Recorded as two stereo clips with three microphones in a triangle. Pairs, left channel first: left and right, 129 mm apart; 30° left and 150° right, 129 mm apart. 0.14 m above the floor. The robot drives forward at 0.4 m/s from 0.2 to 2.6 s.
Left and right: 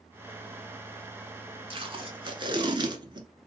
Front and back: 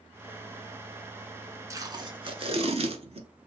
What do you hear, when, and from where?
1.7 s tape being pulled: 95° right, 0.6 m; by 3.3 s 135° right, 0.7 m